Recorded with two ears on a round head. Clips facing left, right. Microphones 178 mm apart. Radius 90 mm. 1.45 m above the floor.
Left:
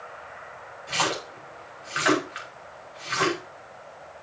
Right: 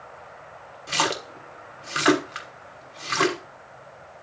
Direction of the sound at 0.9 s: 55° right (ahead or behind).